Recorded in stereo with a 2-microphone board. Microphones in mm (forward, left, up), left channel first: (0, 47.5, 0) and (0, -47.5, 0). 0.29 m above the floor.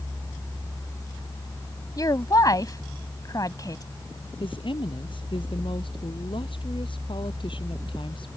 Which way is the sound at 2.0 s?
40° left (ahead or behind).